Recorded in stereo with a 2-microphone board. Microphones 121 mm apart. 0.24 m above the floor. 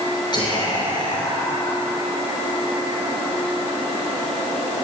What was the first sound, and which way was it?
Whispering, 40° left (ahead or behind).